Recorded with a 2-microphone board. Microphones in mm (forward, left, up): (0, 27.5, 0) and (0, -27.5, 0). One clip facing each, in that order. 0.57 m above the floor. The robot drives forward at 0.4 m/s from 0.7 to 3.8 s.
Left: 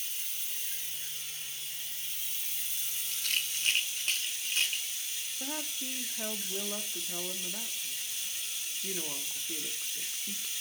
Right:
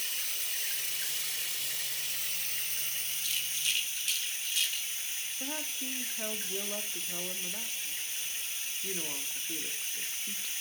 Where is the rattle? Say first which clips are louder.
Left 6 dB; 60° left (ahead or behind), 0.6 m; by 4.9 s 45° left (ahead or behind), 0.7 m.